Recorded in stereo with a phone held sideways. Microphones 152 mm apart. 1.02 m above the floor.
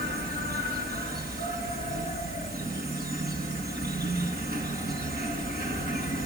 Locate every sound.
0.0 s an insect: 85° right, 4.5 m